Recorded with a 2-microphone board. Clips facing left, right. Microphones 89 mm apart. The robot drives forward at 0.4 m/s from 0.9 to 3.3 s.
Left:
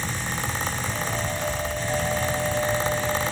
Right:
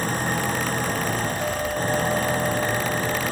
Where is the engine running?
45° right (ahead or behind).